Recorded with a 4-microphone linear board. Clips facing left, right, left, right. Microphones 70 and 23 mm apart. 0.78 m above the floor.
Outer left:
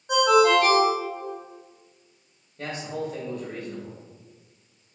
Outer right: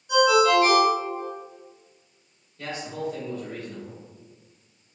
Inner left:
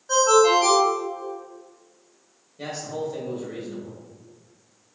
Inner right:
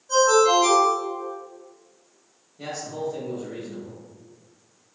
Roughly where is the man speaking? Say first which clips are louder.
Outer left 1 dB, inner left 1 dB; left.